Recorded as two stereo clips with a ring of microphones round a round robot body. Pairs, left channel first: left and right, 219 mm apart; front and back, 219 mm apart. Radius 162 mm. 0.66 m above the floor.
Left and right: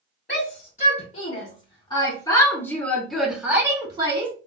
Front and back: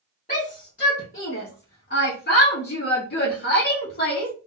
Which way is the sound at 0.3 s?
50° left.